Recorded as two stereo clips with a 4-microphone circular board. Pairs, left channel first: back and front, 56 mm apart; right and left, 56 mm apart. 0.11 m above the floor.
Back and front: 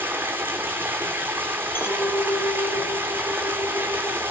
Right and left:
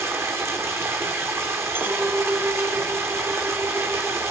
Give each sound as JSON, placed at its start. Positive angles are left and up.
{"t": 0.0, "sound": "running water", "azimuth_deg": 50, "distance_m": 2.0}
{"t": 1.8, "sound": "a clink", "azimuth_deg": 140, "distance_m": 1.8}